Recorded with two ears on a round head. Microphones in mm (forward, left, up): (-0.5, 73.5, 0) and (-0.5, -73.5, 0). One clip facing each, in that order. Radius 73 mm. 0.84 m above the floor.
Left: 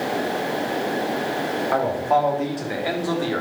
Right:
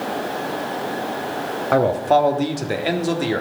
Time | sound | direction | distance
1.7 | a man speaking | 55° right (ahead or behind) | 1.4 m